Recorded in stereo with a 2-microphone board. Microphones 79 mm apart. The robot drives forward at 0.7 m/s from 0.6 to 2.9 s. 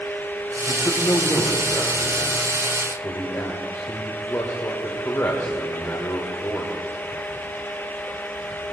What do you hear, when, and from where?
0.7 s a man speaking: 45° left (ahead or behind), 1.5 m; by 6.7 s 40° left (ahead or behind), 1.7 m